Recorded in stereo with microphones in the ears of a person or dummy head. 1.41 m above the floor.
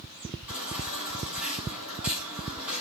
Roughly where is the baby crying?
Centre.